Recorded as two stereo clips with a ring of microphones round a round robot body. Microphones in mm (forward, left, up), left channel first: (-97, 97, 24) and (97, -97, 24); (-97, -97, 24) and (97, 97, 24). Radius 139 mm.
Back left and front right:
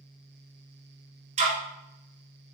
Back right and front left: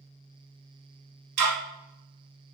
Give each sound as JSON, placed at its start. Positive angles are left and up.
{"t": 1.4, "sound": "ticking", "azimuth_deg": 20, "distance_m": 1.1}